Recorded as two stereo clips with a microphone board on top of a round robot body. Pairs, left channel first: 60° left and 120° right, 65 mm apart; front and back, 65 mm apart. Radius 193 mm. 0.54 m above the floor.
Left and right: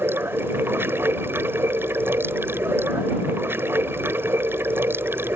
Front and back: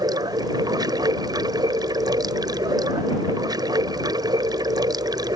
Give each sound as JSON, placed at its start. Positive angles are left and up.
{"t": 0.0, "sound": "running water", "azimuth_deg": -175}